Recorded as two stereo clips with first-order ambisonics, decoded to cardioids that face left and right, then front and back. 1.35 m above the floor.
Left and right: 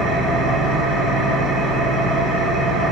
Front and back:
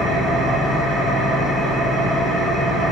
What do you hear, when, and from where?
0.0 s an engine running: 105° right, 1.7 m